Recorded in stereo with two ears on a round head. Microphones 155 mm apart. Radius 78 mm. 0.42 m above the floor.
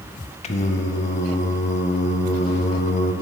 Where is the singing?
40° left (ahead or behind), 0.6 m.